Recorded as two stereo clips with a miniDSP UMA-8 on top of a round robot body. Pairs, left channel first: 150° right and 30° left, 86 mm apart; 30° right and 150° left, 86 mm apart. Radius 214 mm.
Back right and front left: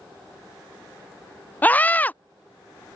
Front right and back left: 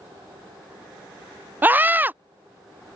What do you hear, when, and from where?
1.6 s a scream: 175° left